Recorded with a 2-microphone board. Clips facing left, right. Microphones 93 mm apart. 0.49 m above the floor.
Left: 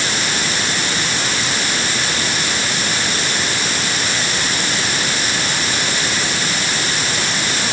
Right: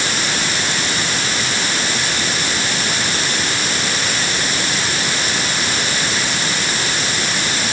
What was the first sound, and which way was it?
Only background noise.